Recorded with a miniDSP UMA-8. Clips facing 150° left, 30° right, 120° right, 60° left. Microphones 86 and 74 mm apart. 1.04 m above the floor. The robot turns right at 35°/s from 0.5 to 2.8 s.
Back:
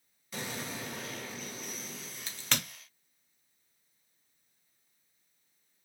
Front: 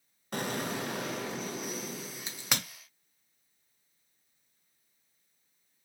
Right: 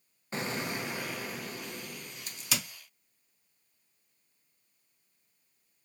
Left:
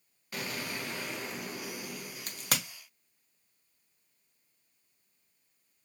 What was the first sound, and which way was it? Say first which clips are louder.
An explosion: front 6 dB, right 4 dB; 60° right.